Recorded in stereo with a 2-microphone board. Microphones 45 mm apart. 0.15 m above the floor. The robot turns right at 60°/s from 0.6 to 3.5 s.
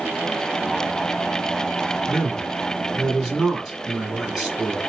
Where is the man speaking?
15° left (ahead or behind), 1.4 m; by 4.8 s 10° right (ahead or behind), 1.4 m.